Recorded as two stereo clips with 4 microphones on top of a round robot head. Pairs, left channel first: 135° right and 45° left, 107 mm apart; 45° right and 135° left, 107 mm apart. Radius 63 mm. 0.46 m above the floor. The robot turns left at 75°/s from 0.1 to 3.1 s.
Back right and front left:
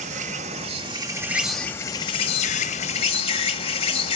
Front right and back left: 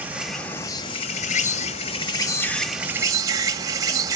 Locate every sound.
0.0 s an insect: 60° left, 1.2 m; by 4.2 s 165° right, 1.2 m